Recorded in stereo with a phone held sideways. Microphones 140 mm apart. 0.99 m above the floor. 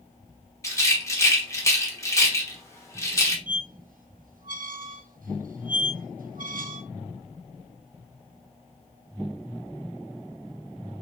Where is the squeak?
80° right, 0.6 m.